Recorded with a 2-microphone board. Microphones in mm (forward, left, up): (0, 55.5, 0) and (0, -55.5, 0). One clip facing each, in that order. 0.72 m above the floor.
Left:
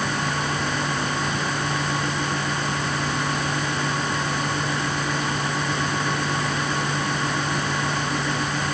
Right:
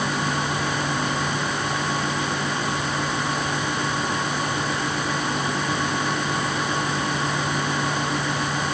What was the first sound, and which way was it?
Only background noise.